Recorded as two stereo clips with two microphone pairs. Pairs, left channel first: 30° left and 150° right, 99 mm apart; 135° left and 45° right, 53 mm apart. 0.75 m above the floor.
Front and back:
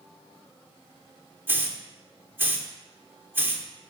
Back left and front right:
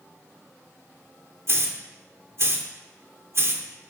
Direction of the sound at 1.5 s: 80° right.